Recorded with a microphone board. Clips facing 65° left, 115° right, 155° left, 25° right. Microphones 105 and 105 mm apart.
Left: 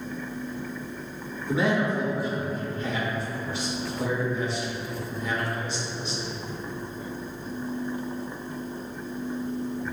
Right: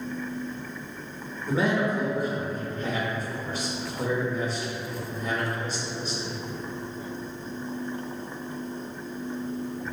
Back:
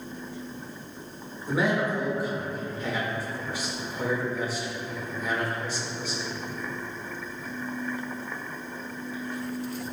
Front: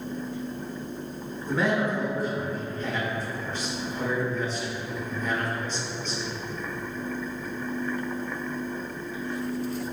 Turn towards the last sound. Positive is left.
turn(degrees=-125)